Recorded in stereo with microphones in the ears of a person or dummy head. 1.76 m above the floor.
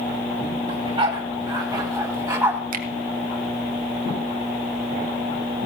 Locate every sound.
0.7 s a dog barking: 25° right (ahead or behind), 2.5 m; by 2.6 s 10° right (ahead or behind), 3 m
2.7 s a finger snap: 45° right (ahead or behind), 1.5 m